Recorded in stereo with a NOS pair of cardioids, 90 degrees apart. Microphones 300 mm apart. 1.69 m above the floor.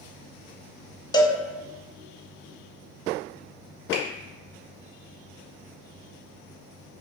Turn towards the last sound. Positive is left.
turn(degrees=40)